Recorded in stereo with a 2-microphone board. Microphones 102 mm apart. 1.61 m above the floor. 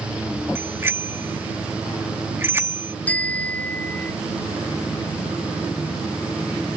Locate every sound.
0.6 s a bicycle bell: 25° right (ahead or behind)
3.1 s a bicycle bell: 15° left (ahead or behind)